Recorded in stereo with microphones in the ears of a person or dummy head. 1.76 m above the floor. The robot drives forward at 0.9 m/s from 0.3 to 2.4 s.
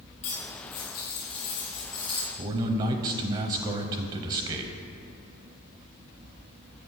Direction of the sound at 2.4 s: 20° right (ahead or behind).